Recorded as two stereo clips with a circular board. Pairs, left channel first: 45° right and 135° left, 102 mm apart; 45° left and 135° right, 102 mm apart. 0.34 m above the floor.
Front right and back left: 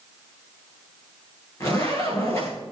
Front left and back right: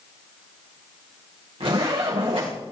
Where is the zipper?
105° right, 7.5 m.